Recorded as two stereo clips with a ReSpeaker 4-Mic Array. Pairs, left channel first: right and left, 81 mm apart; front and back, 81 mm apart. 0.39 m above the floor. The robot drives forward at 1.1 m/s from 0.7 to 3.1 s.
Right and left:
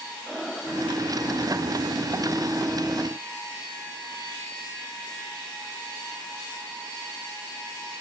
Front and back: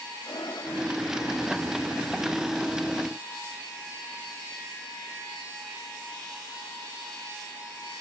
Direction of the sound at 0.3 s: Straight ahead.